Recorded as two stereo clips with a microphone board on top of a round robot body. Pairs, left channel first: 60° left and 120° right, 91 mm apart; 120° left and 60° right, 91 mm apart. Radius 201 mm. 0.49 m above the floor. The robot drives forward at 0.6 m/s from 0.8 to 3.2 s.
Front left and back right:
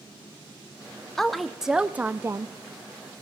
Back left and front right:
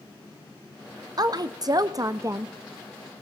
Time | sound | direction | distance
1.2 | a woman speaking | 25° right | 1.0 m